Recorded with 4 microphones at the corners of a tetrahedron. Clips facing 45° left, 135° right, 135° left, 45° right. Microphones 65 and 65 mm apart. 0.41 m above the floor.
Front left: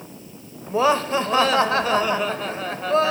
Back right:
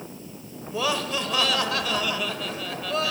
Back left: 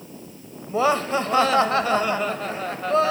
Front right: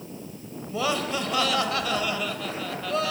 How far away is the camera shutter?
I don't hear a camera shutter.